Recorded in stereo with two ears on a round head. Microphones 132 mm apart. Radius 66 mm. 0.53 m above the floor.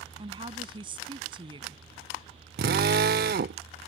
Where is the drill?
70° right (ahead or behind).